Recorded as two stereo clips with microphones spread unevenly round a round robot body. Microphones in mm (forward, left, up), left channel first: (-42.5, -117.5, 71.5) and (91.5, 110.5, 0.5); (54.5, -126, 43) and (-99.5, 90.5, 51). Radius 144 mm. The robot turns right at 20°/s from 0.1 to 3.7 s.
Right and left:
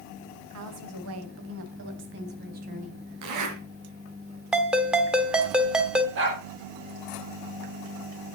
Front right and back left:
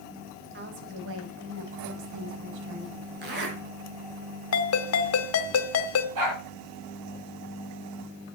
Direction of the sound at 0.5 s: 70° left.